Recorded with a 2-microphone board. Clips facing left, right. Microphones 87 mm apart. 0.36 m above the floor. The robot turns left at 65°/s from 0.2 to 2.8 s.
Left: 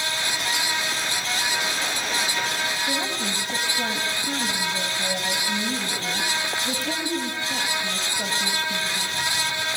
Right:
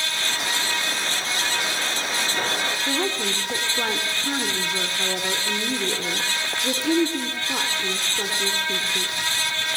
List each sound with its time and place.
2.9 s a woman speaking: 70° right (ahead or behind), 3.5 m